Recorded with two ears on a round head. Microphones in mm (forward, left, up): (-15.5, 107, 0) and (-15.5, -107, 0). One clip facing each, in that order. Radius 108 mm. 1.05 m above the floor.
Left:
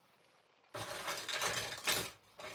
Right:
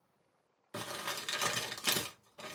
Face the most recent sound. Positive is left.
turn(degrees=-55)  # may be behind; listen again after turning